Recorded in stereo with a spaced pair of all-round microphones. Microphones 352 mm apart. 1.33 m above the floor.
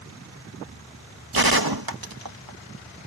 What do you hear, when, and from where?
1.3 s a gunshot: 80° right